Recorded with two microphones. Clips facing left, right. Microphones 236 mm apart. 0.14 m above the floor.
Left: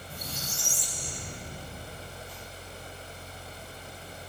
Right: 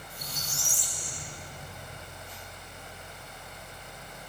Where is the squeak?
70° left (ahead or behind), 2 m.